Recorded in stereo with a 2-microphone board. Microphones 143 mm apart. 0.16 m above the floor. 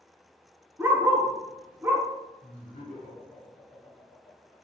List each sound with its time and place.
0.8 s a dog barking: 15° right (ahead or behind), 0.9 m
2.4 s laughter: 45° left (ahead or behind), 1.8 m